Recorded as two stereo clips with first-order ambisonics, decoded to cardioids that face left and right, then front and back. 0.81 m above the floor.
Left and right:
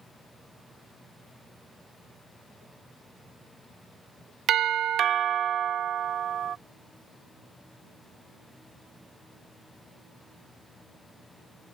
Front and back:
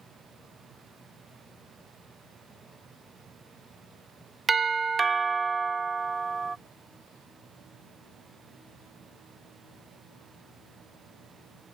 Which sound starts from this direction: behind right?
A doorbell, at 4.5 s.